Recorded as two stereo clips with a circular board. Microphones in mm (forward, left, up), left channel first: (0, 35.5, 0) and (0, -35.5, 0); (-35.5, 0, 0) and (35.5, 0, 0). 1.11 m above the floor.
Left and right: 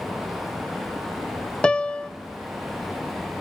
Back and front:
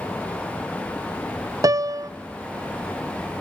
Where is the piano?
15° left, 0.5 m.